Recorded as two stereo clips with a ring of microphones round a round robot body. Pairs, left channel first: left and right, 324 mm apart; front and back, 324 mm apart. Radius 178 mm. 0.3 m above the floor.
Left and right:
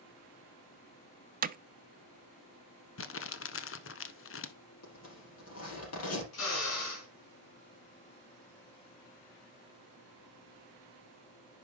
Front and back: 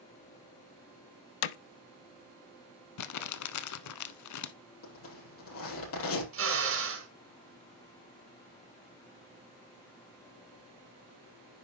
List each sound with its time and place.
1.4 s hammering: 25° right, 0.5 m
3.0 s crumpling: 35° left, 1.0 m
4.8 s a zipper: 45° left, 5.5 m
6.3 s a drill: 135° left, 4.5 m